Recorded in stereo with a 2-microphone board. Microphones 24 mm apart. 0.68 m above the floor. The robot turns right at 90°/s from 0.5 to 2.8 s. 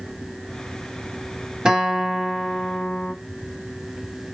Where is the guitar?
50° right, 1.8 m; by 3.1 s 55° left, 1.8 m.